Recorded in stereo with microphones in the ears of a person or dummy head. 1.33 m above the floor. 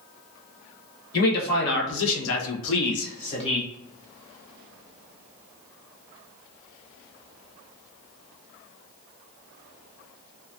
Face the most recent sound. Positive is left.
turn(degrees=25)  # may be behind; listen again after turning